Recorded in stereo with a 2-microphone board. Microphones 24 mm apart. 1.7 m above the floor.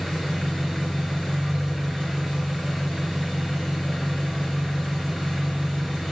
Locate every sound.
0.0 s an engine running: 5° left (ahead or behind), 1.6 m